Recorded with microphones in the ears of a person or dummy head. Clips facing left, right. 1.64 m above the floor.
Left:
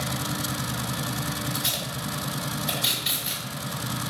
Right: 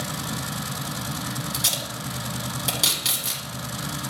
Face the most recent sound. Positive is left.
turn(degrees=-80)